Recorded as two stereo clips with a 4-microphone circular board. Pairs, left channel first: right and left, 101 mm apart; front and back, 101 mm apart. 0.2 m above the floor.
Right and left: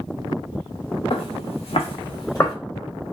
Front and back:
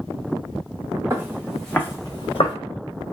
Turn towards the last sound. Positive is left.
turn(degrees=-25)